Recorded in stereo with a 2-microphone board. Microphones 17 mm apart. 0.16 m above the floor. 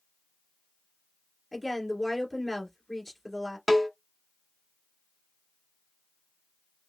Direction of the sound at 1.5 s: 20° left (ahead or behind).